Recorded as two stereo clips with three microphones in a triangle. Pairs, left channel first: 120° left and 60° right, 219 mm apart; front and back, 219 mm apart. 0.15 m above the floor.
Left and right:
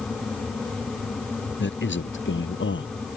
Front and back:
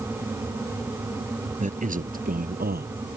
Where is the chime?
I don't hear a chime.